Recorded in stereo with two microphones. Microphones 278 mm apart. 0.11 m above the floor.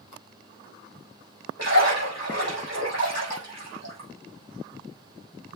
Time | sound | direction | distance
1.6 | a splash | 65° right (ahead or behind) | 5 m